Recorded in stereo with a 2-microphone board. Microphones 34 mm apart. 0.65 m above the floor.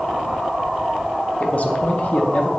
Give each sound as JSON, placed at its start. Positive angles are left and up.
{"t": 1.4, "sound": "a man speaking", "side_deg": 50, "distance_m": 0.8}